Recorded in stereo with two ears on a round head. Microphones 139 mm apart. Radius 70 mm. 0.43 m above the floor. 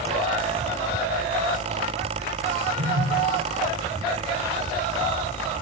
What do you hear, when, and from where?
2.8 s a phone buzzing: 85° right, 9.5 m